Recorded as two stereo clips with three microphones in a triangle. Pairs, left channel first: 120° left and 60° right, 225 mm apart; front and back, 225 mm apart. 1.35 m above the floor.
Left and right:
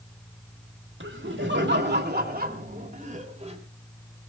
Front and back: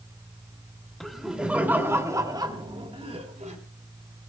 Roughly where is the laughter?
Right.